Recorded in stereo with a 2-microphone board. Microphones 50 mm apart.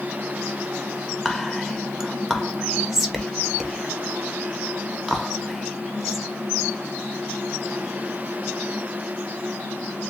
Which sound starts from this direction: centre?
Whispering, at 1.2 s.